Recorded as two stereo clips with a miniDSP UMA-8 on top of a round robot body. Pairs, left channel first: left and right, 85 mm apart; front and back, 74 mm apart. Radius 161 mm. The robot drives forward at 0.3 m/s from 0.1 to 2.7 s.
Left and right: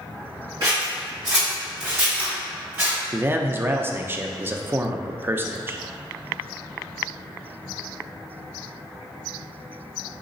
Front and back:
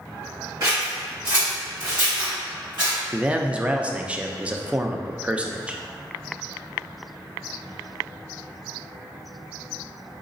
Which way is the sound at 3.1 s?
120° right.